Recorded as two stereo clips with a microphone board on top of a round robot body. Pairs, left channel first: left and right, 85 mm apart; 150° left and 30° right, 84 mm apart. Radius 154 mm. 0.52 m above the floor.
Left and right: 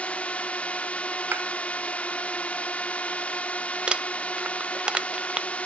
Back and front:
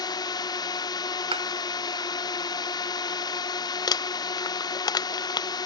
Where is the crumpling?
170° right.